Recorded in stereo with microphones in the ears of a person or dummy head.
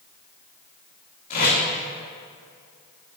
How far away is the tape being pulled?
About 2 m.